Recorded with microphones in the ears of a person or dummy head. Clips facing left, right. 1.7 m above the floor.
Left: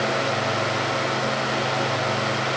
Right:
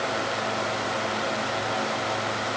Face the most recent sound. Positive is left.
No sound to turn to.